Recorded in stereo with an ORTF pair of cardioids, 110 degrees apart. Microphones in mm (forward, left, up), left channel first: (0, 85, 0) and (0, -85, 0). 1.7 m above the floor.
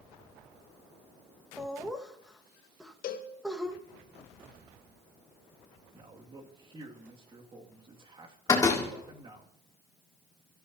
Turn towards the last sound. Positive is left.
turn(degrees=20)